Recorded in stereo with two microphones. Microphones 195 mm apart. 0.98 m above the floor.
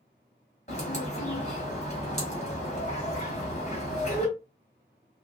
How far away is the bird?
About 1.3 m.